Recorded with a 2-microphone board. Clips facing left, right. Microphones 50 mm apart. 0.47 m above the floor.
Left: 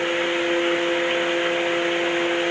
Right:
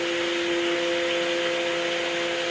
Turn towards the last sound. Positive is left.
No sound to turn to.